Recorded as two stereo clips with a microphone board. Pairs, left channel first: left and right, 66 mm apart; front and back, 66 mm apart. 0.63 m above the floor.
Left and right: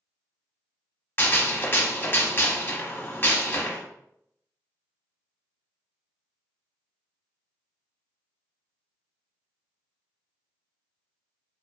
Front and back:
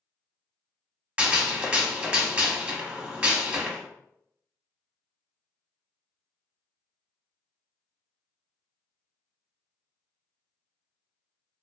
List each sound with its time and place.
1.2 s a gunshot: 120° left, 0.5 m